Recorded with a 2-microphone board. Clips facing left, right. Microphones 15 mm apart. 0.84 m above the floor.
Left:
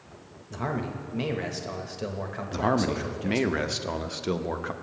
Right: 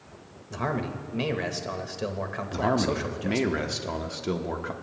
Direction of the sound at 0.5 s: 15° right (ahead or behind).